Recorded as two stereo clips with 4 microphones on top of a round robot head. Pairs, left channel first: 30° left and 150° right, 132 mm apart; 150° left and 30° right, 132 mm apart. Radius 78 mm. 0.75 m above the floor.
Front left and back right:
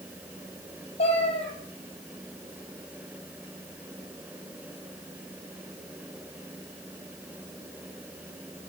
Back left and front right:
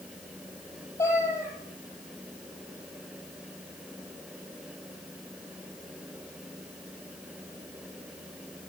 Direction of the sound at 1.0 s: 75° left.